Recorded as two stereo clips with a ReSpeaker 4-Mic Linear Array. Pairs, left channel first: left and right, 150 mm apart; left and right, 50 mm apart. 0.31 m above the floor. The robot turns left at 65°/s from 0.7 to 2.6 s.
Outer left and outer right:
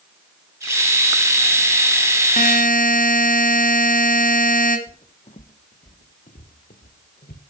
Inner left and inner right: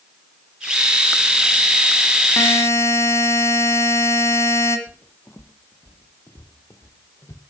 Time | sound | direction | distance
2.4 | a buzzer | 65° left (ahead or behind) | 2 m
4.9 | footsteps | 50° left (ahead or behind) | 0.9 m